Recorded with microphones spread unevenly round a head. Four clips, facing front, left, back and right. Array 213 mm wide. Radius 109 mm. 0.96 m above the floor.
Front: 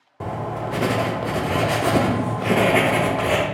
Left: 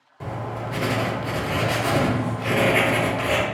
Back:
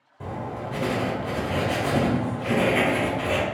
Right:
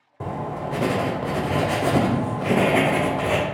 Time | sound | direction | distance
0.2 | writing | 40° right | 0.6 m